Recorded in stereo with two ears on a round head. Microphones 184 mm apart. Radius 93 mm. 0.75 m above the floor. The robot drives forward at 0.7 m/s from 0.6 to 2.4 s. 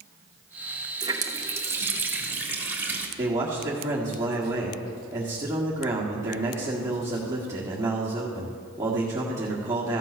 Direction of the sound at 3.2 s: 10° right (ahead or behind).